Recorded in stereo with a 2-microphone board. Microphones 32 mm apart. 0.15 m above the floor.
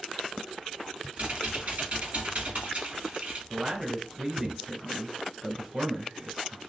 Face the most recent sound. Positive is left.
turn(degrees=-20)  # may be behind; listen again after turning